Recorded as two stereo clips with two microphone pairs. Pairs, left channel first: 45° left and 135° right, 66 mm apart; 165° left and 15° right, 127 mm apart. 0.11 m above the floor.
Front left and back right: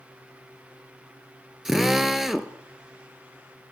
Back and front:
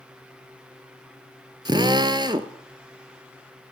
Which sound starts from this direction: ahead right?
A drill, at 1.6 s.